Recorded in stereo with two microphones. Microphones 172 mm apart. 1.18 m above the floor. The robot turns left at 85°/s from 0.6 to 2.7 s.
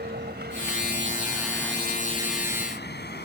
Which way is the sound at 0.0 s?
75° right (ahead or behind).